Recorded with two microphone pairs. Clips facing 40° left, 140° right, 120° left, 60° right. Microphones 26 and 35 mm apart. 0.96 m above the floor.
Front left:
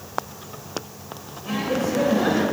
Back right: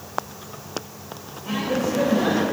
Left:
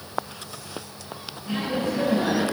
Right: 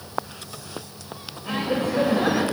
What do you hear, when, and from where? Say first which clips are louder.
1.4 s laughter: even, right 2 dB; 30° right, 2.5 m